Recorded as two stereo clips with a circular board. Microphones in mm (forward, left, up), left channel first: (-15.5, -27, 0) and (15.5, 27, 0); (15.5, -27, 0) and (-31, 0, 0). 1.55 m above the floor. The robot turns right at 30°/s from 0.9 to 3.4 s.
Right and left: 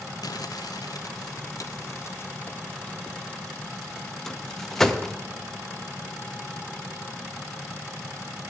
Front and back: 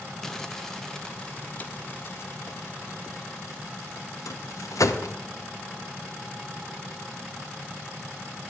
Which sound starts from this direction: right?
Crumpling, at 0.2 s.